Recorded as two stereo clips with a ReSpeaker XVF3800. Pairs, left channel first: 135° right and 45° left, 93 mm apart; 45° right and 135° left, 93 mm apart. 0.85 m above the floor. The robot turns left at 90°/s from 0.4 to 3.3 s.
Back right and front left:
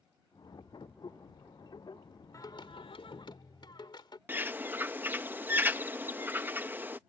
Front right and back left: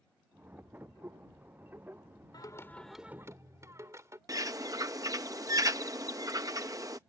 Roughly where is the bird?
Left.